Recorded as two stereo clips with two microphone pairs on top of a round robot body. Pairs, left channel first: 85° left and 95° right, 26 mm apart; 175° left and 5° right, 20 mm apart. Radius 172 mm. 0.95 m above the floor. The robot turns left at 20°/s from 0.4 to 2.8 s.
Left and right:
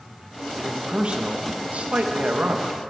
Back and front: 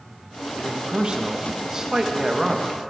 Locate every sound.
0.6 s a man speaking: 45° right, 1.1 m; by 2.8 s 90° right, 1.1 m